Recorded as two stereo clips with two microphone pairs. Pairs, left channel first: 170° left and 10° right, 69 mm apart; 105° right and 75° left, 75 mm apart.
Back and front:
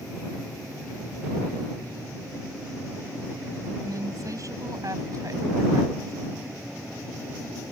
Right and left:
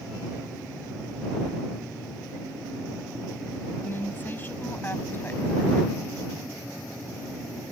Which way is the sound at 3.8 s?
40° right.